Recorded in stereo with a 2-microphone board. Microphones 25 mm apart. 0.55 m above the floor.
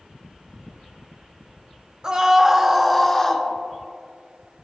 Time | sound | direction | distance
2.0 | a scream | 30° right (ahead or behind) | 1.5 m